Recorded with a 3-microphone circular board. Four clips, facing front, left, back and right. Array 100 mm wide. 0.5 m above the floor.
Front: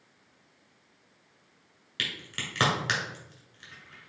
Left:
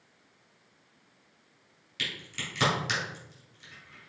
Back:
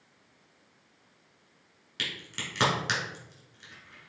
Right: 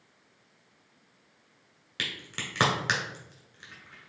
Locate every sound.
2.0 s a crack: 85° right, 1.7 m